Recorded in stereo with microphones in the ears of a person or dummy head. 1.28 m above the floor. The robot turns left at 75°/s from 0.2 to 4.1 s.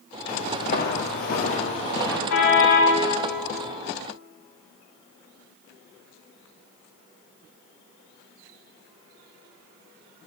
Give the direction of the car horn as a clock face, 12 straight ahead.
9 o'clock.